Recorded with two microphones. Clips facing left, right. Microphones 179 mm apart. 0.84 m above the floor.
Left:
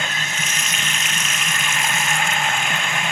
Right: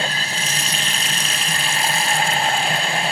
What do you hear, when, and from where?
0.0 s running water: 35° right (ahead or behind), 0.8 m